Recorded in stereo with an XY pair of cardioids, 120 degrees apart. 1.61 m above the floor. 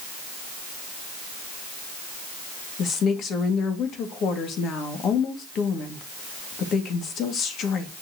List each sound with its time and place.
2.8 s a woman speaking: 60° left, 2 m